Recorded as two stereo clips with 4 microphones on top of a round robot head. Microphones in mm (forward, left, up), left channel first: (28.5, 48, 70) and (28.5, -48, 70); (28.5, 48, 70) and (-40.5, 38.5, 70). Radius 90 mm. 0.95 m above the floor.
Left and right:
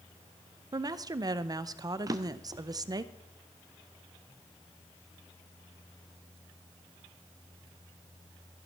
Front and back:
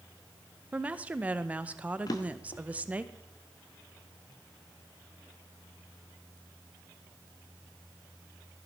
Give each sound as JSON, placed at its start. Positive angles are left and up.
{"t": 0.7, "sound": "a woman speaking", "azimuth_deg": -110, "distance_m": 0.6}
{"t": 2.1, "sound": "a drawer", "azimuth_deg": -35, "distance_m": 0.8}